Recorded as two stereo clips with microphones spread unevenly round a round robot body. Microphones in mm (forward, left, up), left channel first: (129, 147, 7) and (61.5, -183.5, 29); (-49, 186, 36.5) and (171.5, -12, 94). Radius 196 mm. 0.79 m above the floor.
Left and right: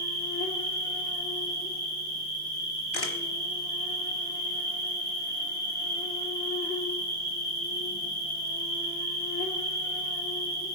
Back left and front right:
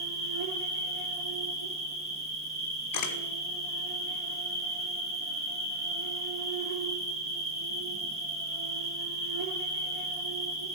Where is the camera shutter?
115° left, 1.3 m.